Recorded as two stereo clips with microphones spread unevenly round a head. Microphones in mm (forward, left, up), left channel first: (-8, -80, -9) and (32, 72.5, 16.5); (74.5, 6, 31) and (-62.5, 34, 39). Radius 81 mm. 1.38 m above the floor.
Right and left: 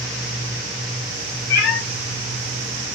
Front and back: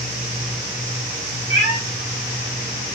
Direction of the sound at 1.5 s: 135° right.